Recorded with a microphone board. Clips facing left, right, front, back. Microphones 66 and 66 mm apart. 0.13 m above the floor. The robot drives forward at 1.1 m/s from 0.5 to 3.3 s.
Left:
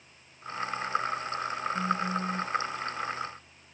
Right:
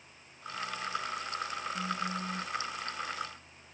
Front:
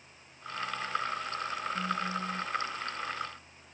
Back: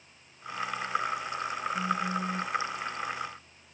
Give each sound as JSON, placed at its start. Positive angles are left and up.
{"t": 1.7, "sound": "a phone buzzing", "azimuth_deg": 95}